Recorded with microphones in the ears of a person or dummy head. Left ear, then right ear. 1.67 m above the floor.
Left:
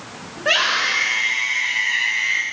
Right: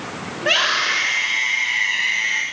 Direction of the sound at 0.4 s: 5° left (ahead or behind).